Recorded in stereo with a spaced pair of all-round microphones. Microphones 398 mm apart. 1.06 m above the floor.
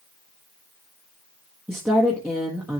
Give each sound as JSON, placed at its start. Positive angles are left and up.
{"t": 1.7, "sound": "a woman speaking", "side_deg": -5, "distance_m": 1.4}